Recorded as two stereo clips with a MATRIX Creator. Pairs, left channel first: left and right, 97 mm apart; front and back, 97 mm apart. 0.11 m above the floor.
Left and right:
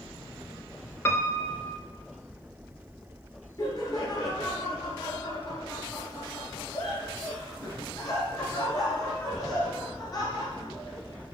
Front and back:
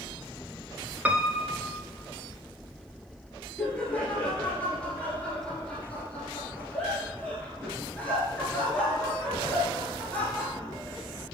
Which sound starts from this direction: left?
Laughter, at 3.6 s.